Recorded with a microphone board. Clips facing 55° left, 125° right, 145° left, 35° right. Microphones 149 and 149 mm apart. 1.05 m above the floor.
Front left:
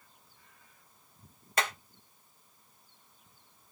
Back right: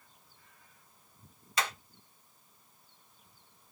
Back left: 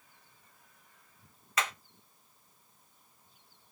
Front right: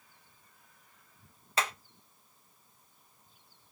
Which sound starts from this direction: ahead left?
Hammering, at 1.6 s.